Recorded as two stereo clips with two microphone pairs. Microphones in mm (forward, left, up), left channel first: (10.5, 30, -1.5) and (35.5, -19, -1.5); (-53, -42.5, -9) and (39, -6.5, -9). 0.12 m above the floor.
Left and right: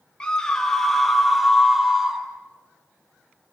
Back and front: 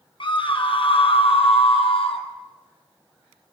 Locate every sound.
0.2 s a scream: 170° right, 3 m; by 2.2 s 140° right, 4 m